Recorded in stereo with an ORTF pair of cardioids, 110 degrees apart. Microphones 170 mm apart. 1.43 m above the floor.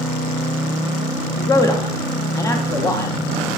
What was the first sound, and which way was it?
A man speaking, 20° left.